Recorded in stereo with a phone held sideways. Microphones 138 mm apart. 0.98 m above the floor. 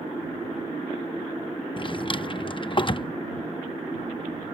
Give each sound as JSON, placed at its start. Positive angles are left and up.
{"t": 1.8, "sound": "a drawer", "side_deg": 35}